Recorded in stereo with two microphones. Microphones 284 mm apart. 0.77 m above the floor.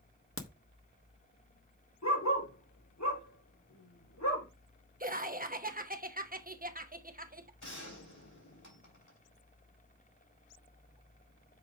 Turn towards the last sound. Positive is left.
turn(degrees=80)